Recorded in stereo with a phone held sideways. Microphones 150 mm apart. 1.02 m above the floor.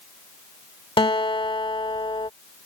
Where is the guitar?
35° left (ahead or behind).